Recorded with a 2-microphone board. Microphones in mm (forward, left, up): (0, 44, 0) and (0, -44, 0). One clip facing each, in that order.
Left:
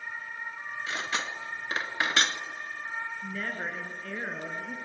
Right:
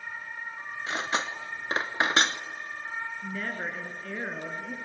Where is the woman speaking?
5° right (ahead or behind), 1.8 m.